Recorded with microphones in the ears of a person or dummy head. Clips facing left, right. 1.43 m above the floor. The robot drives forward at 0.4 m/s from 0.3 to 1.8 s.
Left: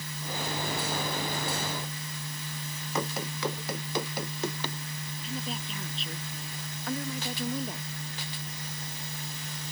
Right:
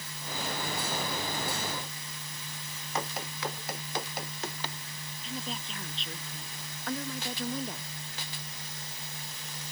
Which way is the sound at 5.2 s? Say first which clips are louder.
Left 2 dB; 5° left (ahead or behind).